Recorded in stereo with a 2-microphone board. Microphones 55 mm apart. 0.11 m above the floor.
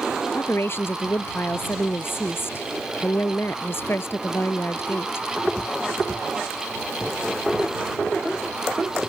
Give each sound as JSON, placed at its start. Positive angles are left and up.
{"t": 0.3, "sound": "a woman speaking", "side_deg": 50}